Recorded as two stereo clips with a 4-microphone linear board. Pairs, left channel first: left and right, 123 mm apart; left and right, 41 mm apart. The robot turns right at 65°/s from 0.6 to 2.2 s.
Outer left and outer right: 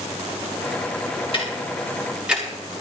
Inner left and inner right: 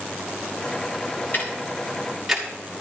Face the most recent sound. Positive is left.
turn(degrees=-5)  # may be behind; listen again after turning